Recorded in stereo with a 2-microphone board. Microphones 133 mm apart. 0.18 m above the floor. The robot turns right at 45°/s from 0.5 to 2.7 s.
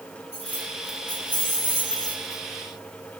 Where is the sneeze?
I don't hear a sneeze.